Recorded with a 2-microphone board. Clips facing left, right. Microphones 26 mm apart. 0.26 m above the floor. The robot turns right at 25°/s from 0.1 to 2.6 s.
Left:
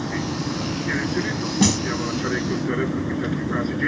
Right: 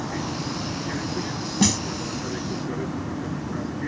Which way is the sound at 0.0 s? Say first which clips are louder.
Left 3 dB; 35° left.